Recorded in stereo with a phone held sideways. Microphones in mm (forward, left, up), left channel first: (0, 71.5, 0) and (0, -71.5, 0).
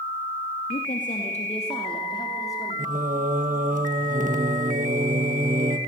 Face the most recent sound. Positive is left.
turn(degrees=-65)  # may be behind; listen again after turning